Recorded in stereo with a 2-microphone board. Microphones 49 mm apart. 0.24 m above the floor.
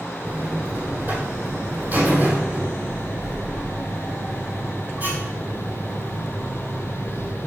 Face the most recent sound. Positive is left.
turn(degrees=-45)  # may be behind; listen again after turning